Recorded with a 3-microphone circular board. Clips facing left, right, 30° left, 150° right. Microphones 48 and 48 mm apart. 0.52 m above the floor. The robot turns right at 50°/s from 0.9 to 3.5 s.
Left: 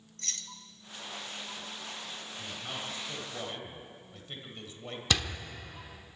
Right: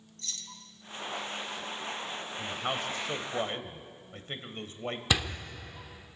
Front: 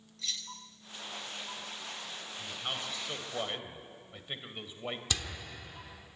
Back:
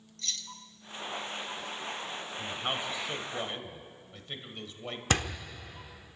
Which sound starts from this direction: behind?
A door slam, at 5.1 s.